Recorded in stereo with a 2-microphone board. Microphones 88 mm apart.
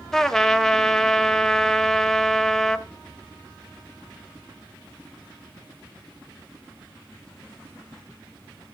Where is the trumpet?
5° left (ahead or behind), 0.7 m.